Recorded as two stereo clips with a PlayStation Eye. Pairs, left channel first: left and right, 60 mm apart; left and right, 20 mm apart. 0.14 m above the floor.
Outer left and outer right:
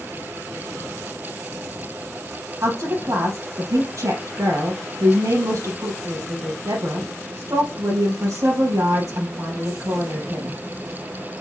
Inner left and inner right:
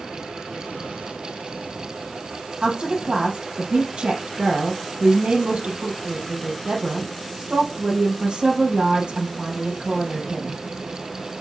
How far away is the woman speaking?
About 3.5 m.